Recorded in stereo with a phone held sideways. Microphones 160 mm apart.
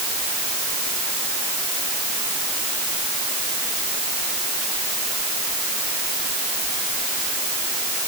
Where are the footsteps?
No footsteps in this recording.